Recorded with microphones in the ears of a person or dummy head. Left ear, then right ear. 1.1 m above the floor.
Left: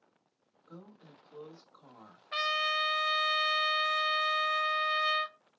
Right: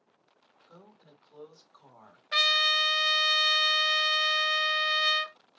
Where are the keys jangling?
I don't hear keys jangling.